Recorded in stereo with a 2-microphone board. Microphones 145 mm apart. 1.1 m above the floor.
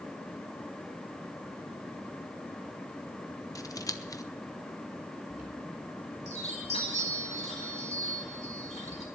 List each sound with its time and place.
3.5 s scissors: 25° left (ahead or behind), 0.8 m
5.3 s a chime: 45° left (ahead or behind), 5.5 m